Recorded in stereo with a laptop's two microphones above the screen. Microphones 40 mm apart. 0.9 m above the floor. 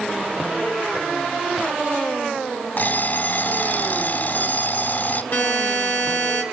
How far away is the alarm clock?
About 2 m.